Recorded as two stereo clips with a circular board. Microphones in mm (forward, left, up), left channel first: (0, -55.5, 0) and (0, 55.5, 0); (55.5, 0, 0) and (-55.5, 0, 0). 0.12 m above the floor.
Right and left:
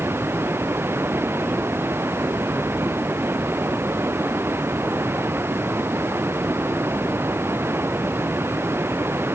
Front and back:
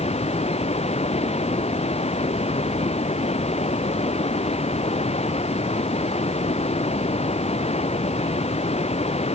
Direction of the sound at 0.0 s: 20° left.